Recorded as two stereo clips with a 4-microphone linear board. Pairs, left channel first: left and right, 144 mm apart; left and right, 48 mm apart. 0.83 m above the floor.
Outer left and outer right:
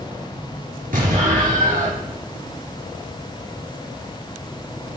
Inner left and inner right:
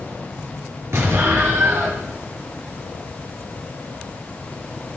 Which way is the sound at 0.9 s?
75° right (ahead or behind).